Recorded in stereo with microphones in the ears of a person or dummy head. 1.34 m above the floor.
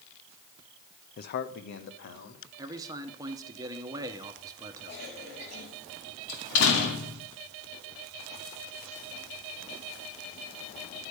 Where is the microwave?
I don't hear a microwave.